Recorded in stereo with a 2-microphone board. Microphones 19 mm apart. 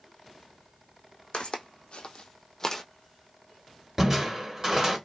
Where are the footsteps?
55° left (ahead or behind), 0.7 m; by 2.8 s 20° left (ahead or behind), 0.6 m.